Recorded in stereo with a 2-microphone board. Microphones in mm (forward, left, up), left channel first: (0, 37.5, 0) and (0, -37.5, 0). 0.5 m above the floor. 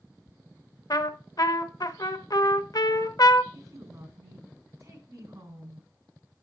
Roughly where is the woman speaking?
Right.